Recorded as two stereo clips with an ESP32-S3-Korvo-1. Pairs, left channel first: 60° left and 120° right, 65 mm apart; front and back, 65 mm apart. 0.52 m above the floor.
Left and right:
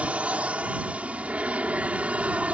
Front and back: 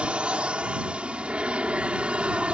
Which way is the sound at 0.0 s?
140° right.